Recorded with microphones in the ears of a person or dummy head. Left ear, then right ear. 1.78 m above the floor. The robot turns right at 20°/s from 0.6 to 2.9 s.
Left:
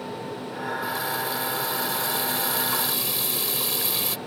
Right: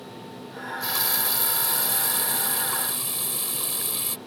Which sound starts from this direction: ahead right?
A running tap, at 0.6 s.